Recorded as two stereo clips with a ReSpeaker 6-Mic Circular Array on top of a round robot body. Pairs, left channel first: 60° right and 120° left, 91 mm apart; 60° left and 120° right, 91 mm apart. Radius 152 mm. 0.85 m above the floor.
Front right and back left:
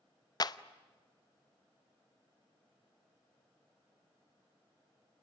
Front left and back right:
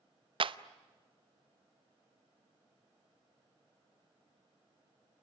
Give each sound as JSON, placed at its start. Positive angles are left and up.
{"t": 0.4, "sound": "a clap", "azimuth_deg": -105, "distance_m": 1.0}